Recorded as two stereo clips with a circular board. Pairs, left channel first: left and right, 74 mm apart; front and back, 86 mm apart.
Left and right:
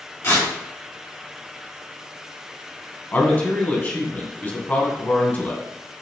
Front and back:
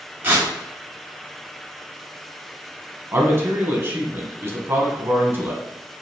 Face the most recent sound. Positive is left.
turn(degrees=140)